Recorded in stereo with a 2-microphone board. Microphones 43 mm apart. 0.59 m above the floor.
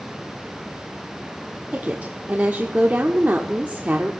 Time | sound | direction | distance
1.7 | a woman speaking | 40° right (ahead or behind) | 1.0 m